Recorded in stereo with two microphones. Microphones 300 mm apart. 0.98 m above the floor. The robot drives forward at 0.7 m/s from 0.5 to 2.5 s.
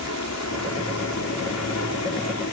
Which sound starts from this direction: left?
An aircraft, at 0.0 s.